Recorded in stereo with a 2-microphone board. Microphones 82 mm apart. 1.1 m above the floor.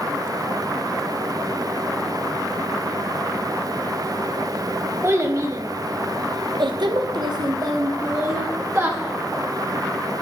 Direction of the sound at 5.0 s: 35° right (ahead or behind).